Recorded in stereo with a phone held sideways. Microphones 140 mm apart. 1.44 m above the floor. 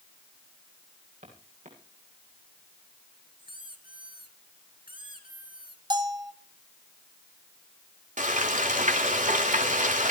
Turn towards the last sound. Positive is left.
turn(degrees=-75)  # may be behind; listen again after turning